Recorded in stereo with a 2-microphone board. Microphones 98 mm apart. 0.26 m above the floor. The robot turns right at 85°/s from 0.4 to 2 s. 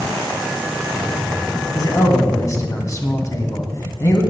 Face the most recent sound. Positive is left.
turn(degrees=40)  # may be behind; listen again after turning